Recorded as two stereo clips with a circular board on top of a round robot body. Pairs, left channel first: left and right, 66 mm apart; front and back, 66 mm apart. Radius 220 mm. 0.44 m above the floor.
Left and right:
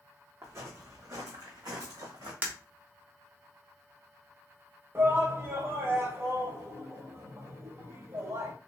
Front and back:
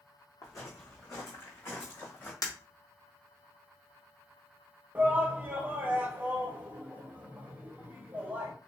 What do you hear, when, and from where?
0.4 s footsteps: 35° right, 1.6 m; by 2.3 s 65° right, 2.5 m
2.4 s breaking glass: 30° right, 1.5 m
5.0 s a shout: 125° right, 1.6 m